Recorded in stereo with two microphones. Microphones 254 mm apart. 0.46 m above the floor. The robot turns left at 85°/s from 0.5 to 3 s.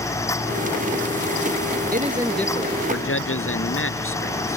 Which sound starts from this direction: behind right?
A man speaking, at 1.9 s.